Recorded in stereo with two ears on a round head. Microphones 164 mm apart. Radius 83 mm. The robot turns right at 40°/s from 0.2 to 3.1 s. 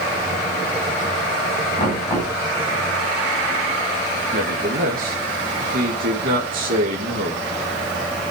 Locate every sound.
1.8 s knocking: 30° left (ahead or behind), 9 m; by 2.3 s 10° left (ahead or behind), 9 m
4.3 s a man speaking: 50° right (ahead or behind), 2.5 m